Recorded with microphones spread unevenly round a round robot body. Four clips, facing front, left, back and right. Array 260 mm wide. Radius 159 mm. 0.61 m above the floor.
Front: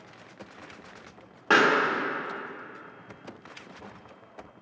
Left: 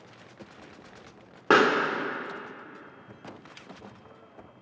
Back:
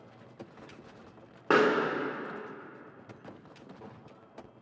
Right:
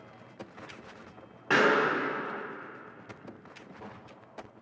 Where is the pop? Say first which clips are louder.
Left 3 dB, front 2 dB; 80° left, 0.8 m.